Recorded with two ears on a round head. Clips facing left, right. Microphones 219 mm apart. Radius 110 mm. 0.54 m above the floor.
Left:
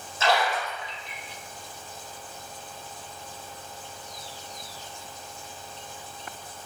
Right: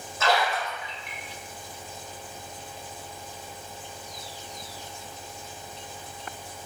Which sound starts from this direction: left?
A splash, at 0.2 s.